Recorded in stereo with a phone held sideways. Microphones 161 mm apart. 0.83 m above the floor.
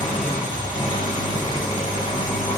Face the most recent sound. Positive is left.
turn(degrees=55)  # may be behind; listen again after turning